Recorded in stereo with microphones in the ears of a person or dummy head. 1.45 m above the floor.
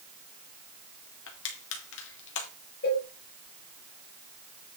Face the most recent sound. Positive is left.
turn(degrees=55)  # may be behind; listen again after turning